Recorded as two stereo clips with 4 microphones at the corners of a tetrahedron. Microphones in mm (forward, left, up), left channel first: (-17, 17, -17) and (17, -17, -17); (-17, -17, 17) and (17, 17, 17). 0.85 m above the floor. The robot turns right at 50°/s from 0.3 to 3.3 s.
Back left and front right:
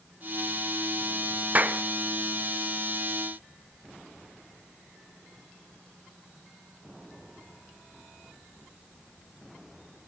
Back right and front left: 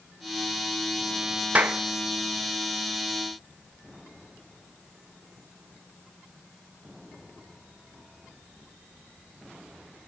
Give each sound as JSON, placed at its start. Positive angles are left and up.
{"t": 1.6, "sound": "a clap", "azimuth_deg": -5, "distance_m": 0.7}